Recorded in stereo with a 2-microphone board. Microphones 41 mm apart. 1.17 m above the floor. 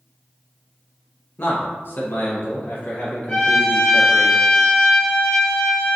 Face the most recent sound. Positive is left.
turn(degrees=25)  # may be behind; listen again after turning